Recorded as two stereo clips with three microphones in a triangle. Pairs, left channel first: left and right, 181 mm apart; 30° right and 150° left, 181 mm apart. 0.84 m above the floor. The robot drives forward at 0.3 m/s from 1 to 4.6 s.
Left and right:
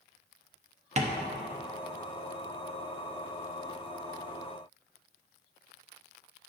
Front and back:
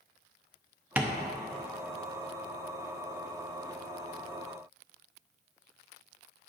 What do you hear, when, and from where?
1.0 s tapping: 130° right, 0.7 m; by 1.2 s 135° right, 0.7 m